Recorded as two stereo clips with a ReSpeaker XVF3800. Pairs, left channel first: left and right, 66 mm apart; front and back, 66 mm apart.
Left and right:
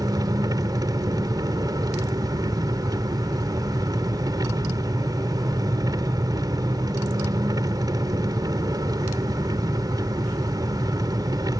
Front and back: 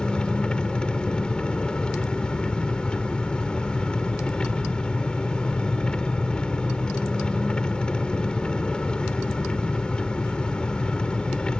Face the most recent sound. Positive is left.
turn(degrees=-75)